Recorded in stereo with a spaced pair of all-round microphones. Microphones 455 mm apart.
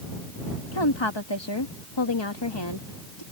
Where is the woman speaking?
70° left (ahead or behind).